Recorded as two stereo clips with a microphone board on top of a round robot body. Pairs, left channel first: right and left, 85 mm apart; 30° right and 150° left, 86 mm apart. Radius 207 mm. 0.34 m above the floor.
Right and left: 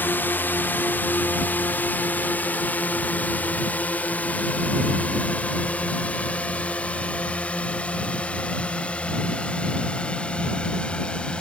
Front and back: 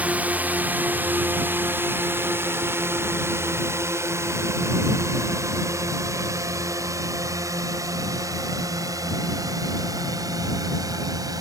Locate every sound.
0.0 s a drone: 145° right; by 11.4 s 165° right